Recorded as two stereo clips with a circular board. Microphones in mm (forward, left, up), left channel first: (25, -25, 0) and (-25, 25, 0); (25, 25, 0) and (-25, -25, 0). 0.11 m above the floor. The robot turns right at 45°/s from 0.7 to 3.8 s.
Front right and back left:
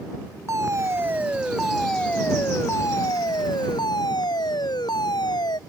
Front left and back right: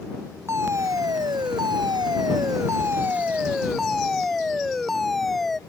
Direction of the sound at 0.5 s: Straight behind.